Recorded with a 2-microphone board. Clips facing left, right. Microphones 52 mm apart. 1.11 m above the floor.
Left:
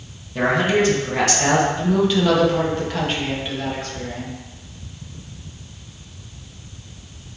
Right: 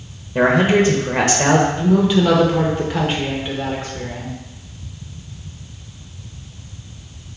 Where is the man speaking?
30° right (ahead or behind), 0.8 m.